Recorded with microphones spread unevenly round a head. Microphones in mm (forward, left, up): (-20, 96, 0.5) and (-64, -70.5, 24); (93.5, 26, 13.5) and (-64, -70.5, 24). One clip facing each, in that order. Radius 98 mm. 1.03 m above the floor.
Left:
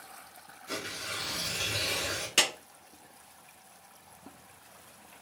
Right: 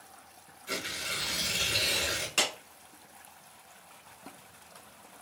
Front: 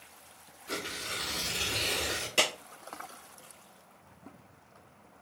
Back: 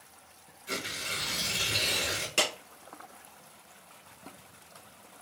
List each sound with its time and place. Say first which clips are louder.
0.7 s tearing paper: even, even; 150° right, 1.7 m
2.4 s a clap: left 1 dB, even; 135° left, 2.5 m